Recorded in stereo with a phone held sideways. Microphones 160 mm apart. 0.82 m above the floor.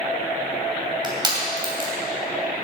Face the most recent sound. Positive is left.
turn(degrees=-30)  # may be behind; listen again after turning